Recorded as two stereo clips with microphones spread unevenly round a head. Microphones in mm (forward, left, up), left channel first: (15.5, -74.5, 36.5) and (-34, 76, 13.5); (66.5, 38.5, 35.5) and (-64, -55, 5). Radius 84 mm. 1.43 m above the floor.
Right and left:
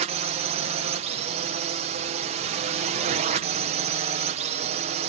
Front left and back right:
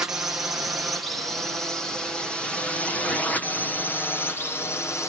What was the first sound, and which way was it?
A drone, 140° left.